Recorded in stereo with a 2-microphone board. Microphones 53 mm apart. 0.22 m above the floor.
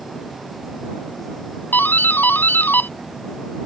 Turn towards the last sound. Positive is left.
turn(degrees=40)  # may be behind; listen again after turning